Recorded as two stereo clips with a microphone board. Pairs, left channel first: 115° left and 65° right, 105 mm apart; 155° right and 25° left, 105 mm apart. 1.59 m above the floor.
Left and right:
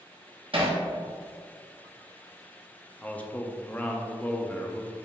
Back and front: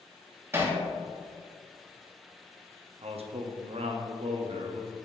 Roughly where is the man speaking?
Ahead left.